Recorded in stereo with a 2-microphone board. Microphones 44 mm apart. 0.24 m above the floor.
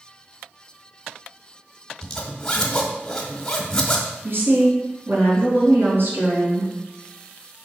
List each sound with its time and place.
2.0 s a zipper: 15° left (ahead or behind), 1.1 m
4.2 s a woman speaking: 60° right (ahead or behind), 3 m